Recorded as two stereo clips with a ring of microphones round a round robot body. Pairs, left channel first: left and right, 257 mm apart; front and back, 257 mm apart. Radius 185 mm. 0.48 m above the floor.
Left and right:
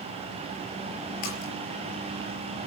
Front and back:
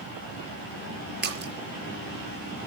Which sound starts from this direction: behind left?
A splash, at 1.2 s.